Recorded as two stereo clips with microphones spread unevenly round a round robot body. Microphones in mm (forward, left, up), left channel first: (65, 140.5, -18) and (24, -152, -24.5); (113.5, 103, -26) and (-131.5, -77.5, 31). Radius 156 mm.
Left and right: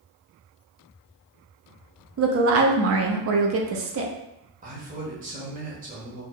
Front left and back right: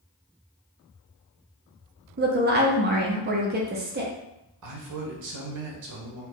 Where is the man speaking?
155° right, 0.9 m.